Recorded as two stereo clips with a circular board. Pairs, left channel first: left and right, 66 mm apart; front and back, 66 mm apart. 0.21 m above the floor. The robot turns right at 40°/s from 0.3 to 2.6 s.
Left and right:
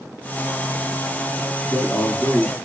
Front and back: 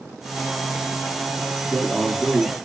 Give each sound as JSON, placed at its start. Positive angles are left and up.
{"t": 1.6, "sound": "a man speaking", "azimuth_deg": 70, "distance_m": 1.9}